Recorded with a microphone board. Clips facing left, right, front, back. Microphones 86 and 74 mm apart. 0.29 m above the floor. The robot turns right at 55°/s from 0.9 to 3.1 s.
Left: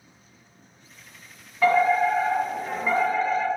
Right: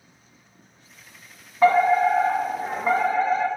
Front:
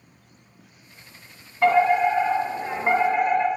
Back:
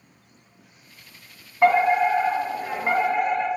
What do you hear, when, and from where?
1.6 s a fire alarm: 130° right, 2 m; by 3.5 s 50° right, 2 m